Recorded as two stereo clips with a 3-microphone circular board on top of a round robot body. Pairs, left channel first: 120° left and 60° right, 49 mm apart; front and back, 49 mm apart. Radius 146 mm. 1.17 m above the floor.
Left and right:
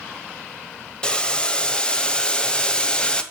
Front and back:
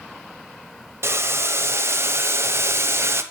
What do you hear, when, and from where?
1.0 s boiling: 175° right, 0.9 m